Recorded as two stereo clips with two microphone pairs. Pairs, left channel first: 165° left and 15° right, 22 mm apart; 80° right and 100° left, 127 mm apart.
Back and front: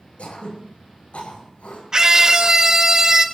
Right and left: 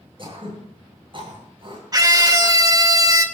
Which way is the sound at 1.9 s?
40° left.